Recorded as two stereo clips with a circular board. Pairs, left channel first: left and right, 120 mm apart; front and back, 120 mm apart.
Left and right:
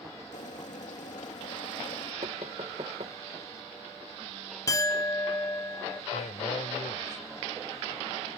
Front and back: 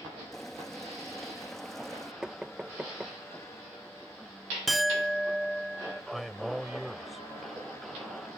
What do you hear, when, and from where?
0.3 s boiling: 85° left
2.2 s knocking: 95° right
4.7 s a clink: 90° left
6.1 s a man speaking: 90° left